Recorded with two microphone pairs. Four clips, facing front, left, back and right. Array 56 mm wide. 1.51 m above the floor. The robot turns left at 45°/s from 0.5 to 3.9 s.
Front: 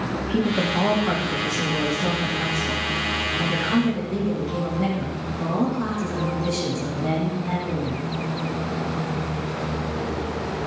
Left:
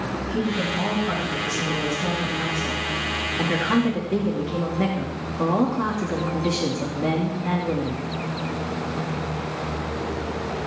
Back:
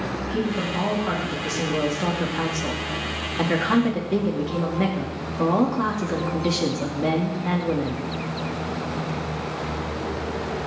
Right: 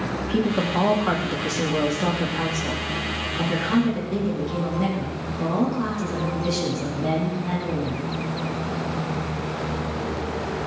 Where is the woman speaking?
60° right, 2.5 m; by 8.1 s 145° left, 2.5 m.